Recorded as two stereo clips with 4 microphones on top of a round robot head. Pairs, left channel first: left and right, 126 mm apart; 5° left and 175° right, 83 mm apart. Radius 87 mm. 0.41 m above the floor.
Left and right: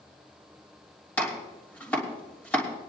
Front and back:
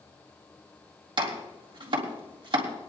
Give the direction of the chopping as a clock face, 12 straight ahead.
6 o'clock.